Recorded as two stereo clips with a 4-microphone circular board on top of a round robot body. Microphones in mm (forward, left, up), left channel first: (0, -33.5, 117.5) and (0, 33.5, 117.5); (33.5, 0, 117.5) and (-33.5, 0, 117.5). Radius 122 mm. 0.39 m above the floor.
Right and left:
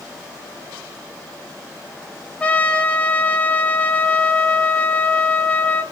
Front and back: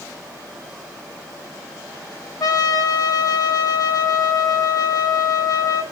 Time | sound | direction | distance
2.4 | a trumpet | 20° right | 1.7 m